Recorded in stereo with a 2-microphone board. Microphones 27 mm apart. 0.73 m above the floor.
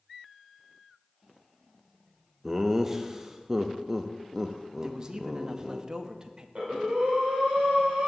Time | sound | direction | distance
2.4 | laughter | 15° right (ahead or behind) | 0.5 m
4.8 | a man speaking | 25° right (ahead or behind) | 0.6 m
6.5 | breathing | 50° right (ahead or behind) | 2.5 m